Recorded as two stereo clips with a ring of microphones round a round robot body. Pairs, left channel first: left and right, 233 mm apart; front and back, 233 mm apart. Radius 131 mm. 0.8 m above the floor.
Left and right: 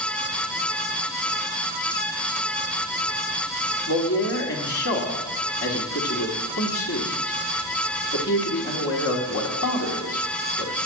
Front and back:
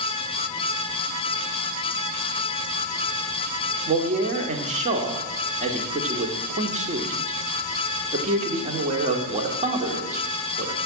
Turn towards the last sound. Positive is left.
turn(degrees=120)